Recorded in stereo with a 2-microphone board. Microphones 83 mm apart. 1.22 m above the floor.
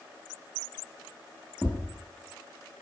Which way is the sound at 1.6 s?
20° right (ahead or behind).